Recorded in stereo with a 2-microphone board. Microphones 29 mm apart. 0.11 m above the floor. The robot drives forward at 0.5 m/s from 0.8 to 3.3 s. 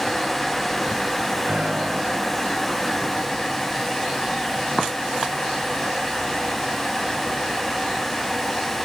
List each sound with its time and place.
1.5 s a piano: 45° right (ahead or behind), 8.5 m